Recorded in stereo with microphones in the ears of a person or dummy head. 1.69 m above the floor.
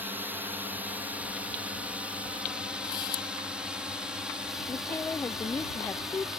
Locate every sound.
0.0 s a drone: 5° right (ahead or behind); by 6.4 s 5° left (ahead or behind)
2.8 s a camera shutter: 30° left (ahead or behind)
4.7 s a woman speaking: centre (ahead or behind)